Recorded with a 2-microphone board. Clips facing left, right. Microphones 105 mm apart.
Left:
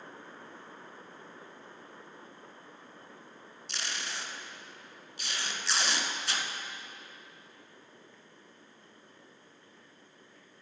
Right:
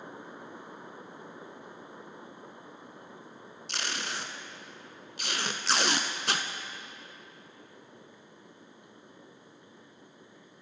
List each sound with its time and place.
3.7 s tape being pulled: 60° right (ahead or behind), 0.6 m